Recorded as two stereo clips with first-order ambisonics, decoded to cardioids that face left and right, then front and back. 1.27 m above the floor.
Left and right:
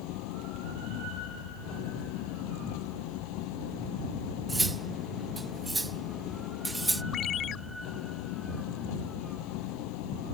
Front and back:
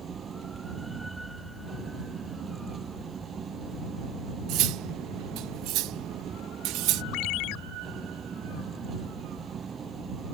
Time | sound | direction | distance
0.0 | an engine running | 110° left | ?
4.5 | cutlery clinking | 170° right | ?
7.1 | a ringtone | 30° left | ?